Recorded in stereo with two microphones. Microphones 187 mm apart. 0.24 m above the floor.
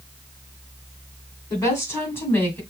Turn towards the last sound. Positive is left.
turn(degrees=10)  # may be behind; listen again after turning